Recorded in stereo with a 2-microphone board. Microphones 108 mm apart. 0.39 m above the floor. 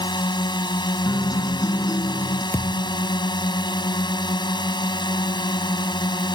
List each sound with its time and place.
0.0 s a drone: 45° left (ahead or behind)
1.1 s a guitar: 35° left (ahead or behind)
2.5 s a thud: 25° left (ahead or behind)